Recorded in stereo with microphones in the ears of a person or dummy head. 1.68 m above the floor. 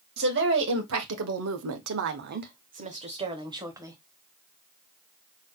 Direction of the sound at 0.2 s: 60° right (ahead or behind).